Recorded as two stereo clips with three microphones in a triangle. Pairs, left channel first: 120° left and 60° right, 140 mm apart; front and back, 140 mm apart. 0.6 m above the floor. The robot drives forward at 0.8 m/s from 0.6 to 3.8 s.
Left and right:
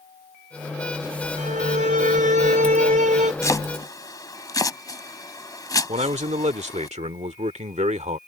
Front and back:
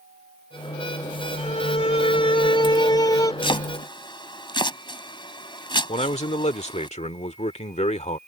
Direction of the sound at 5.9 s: 30° right.